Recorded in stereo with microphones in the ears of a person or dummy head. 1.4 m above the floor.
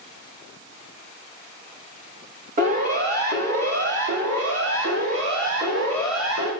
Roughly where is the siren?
Right.